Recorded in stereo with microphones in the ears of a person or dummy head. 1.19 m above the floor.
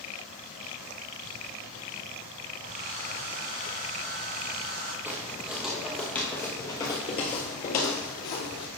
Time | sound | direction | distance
2.6 | a hair dryer | 45° right (ahead or behind) | 5.5 m
5.0 | footsteps | 10° right (ahead or behind) | 2.5 m